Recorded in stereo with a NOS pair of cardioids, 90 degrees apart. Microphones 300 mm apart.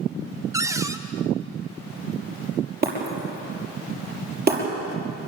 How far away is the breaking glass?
About 6 m.